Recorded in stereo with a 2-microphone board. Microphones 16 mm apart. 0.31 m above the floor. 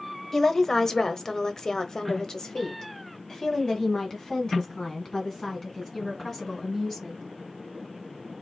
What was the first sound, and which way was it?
A woman speaking, 20° left (ahead or behind).